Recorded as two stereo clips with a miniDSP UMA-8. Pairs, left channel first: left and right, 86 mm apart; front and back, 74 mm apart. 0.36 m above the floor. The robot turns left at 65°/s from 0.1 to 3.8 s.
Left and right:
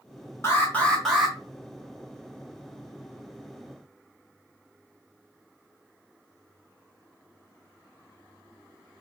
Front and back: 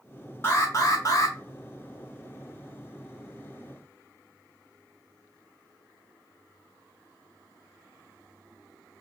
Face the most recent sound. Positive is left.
turn(degrees=-175)